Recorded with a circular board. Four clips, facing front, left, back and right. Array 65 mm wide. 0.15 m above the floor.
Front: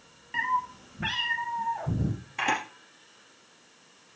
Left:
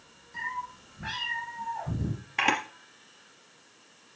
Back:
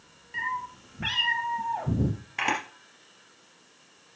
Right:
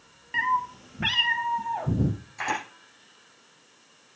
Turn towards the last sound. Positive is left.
turn(degrees=110)